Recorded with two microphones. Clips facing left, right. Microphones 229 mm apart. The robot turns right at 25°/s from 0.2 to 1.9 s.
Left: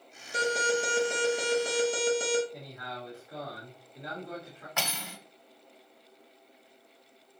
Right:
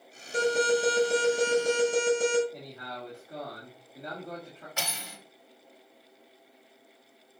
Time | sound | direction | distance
0.3 | an alarm | 160° right | 3.5 m
2.5 | a man speaking | 30° right (ahead or behind) | 2 m
4.8 | cutlery clinking | 60° left (ahead or behind) | 1.4 m